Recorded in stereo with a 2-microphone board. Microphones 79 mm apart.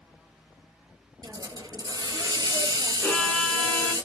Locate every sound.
1.2 s a hiss: 55° right (ahead or behind), 0.9 m
3.0 s a violin: 15° left (ahead or behind), 1.4 m